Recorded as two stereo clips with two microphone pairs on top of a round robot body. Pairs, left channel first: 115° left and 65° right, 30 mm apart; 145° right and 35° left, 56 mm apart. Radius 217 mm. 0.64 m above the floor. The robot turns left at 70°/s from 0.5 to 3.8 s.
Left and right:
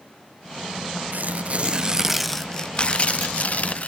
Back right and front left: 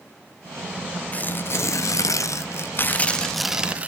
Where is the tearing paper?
80° right, 0.9 m; by 3.9 s 90° left, 0.9 m.